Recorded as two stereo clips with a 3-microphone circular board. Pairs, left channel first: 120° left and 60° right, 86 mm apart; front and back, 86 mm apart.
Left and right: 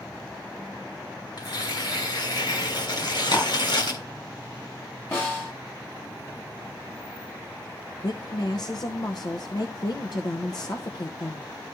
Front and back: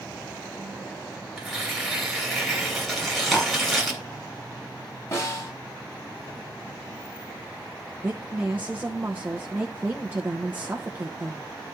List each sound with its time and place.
1.4 s tearing paper: 90° left, 3 m
3.0 s chewing: 90° left, 4 m
5.1 s a snare drum: 55° left, 4.5 m
8.0 s a woman speaking: 120° left, 0.9 m